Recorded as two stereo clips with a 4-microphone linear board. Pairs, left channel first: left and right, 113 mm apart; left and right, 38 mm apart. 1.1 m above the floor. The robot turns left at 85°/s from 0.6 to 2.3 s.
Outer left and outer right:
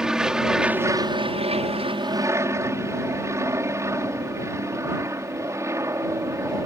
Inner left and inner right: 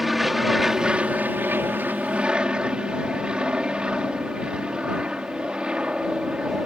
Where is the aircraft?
5° right; by 6.7 s 150° right.